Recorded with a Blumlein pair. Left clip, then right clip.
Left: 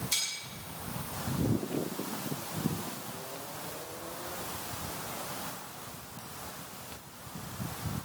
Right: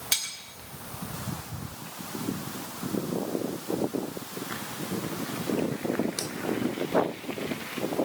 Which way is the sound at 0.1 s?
40° right.